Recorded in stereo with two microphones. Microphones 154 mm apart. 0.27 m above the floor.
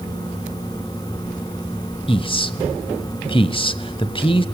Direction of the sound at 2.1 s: 35° left (ahead or behind).